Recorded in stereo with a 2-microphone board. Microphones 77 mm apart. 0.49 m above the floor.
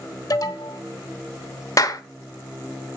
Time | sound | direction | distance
0.3 | an alarm | 50° left (ahead or behind) | 1.2 m
1.8 | a clap | 50° left (ahead or behind) | 1.0 m